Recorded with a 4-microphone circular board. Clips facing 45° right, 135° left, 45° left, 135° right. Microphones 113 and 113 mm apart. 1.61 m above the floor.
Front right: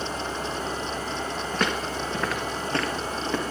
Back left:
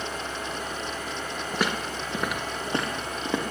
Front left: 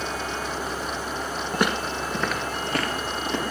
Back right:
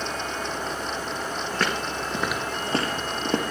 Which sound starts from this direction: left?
Footsteps, at 1.5 s.